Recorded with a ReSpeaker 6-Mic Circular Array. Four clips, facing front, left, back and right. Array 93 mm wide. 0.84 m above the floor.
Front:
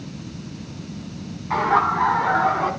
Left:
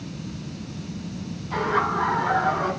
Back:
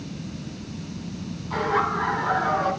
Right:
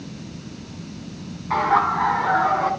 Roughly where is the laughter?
Ahead right.